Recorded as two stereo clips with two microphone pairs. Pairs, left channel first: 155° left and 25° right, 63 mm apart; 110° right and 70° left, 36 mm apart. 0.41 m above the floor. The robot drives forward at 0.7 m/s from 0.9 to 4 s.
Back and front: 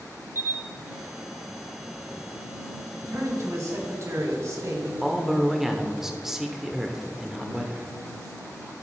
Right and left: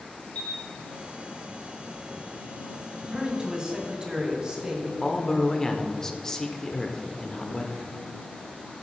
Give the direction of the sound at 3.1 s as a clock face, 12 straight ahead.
12 o'clock.